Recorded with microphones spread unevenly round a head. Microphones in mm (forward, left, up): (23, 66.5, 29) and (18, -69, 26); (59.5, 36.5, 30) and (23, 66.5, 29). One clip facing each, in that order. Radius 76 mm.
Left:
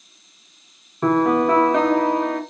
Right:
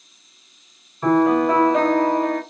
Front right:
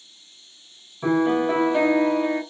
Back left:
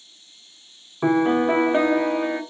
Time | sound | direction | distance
1.0 | a piano | 95° left | 1.1 m